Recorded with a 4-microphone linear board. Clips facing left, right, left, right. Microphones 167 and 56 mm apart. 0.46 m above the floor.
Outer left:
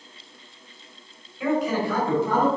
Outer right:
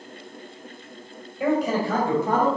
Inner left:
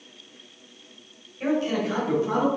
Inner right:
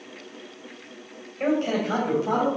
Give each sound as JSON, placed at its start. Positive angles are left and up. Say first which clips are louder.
{"t": 1.4, "sound": "a man speaking", "louder": "outer right 1 dB, inner right 1 dB", "side_deg": -40, "distance_m": 2.5}